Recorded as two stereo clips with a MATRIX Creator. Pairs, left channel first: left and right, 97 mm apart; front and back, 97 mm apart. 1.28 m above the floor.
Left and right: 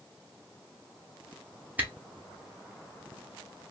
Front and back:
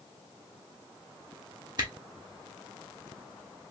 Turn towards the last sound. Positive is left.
turn(degrees=-155)